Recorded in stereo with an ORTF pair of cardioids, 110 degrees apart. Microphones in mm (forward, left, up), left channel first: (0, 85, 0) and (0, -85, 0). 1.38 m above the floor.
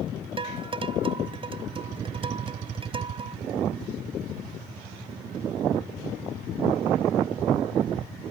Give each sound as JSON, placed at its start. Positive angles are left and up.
{"t": 0.4, "sound": "dishes clattering", "azimuth_deg": -30}